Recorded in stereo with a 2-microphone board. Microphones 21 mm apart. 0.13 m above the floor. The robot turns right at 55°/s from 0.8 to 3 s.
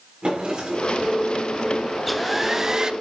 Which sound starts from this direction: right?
A drawer, at 0.2 s.